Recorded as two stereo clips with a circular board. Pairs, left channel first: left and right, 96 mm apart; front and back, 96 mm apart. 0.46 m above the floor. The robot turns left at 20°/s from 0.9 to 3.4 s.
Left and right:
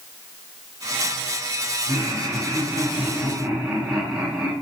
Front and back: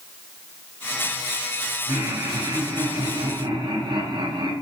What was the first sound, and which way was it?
Laughter, 145° right.